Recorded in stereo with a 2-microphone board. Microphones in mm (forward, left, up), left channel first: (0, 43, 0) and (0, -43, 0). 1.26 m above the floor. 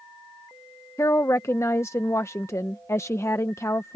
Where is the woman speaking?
35° left (ahead or behind).